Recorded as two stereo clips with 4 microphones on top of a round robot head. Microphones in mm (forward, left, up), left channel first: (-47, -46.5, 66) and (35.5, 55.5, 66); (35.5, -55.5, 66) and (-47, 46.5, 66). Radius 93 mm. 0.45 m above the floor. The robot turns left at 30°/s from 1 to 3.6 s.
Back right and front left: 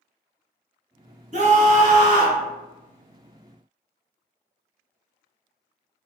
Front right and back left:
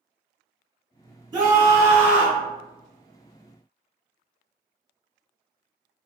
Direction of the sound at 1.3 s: 70° left.